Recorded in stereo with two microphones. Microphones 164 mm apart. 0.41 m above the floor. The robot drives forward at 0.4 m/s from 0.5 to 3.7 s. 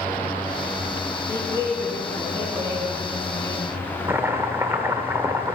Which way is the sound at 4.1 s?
15° right (ahead or behind).